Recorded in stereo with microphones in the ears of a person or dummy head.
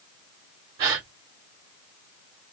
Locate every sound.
0.8 s a gasp: 30° right (ahead or behind), 1.3 m